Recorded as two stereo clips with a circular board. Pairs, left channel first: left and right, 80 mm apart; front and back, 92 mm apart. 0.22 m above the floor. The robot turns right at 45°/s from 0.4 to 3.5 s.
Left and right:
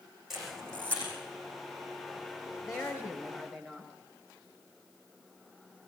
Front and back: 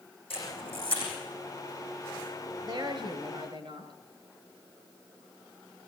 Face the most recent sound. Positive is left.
turn(degrees=175)